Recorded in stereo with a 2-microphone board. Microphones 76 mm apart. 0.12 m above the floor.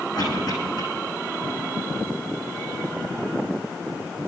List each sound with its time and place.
0.1 s a cough: 70° left (ahead or behind), 7 m